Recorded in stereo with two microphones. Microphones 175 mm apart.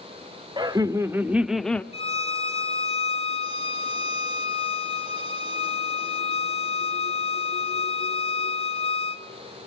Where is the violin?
35° left (ahead or behind), 1.3 m.